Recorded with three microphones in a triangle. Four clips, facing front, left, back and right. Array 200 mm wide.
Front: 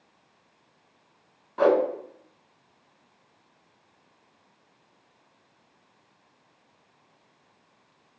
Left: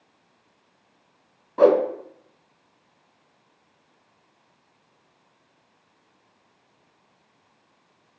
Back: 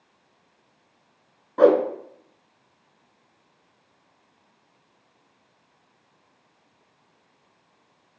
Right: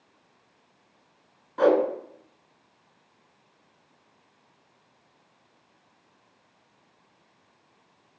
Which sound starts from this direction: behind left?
A whoosh, at 1.6 s.